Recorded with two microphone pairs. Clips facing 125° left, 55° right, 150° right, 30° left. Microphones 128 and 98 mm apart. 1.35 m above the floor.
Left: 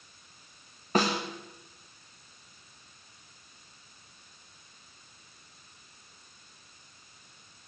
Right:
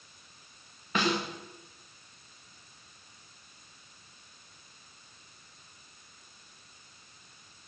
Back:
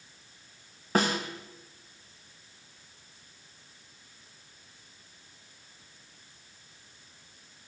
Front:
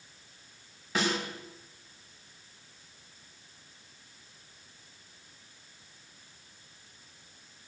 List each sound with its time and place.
0.9 s a snare drum: 170° left, 2.5 m